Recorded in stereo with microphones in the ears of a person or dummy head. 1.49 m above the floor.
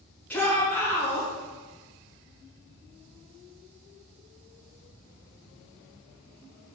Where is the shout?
10° left (ahead or behind), 1.4 m.